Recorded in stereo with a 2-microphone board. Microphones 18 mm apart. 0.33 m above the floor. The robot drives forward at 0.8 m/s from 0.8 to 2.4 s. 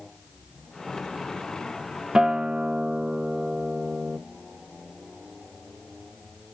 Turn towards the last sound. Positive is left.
turn(degrees=-40)  # may be behind; listen again after turning